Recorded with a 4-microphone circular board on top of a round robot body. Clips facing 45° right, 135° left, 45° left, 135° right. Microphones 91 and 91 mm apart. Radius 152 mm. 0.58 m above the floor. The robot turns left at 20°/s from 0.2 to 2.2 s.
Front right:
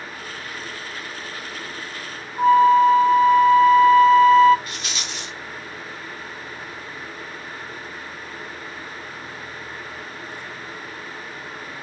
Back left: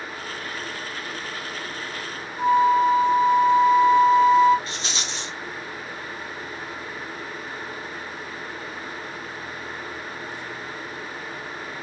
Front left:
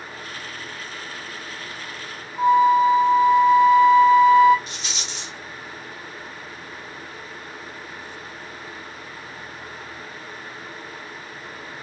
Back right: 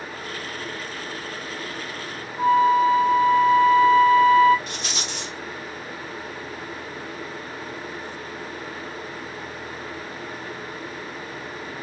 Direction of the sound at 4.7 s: 165° right.